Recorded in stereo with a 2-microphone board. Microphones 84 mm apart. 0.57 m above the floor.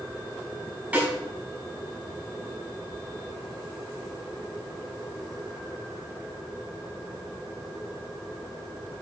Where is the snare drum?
20° right (ahead or behind), 4 m.